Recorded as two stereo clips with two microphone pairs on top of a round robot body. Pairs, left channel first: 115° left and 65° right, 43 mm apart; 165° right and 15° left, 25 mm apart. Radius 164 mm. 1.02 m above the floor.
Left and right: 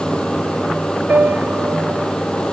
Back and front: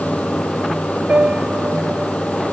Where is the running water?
175° right.